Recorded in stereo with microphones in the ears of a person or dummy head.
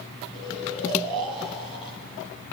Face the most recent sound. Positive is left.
turn(degrees=30)  # may be behind; listen again after turning